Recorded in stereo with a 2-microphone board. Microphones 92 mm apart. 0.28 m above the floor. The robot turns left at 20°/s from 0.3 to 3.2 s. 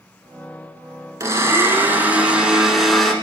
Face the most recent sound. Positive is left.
turn(degrees=175)